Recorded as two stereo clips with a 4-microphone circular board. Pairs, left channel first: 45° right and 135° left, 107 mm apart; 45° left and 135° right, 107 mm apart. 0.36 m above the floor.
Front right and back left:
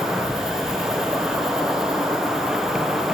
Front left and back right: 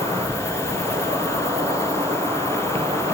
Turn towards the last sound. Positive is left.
turn(degrees=-140)